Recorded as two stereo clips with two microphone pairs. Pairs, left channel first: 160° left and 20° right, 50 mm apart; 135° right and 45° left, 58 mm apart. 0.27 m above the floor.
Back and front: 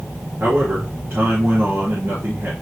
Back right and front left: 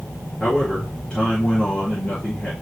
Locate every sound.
0.4 s a man speaking: 60° right, 4.5 m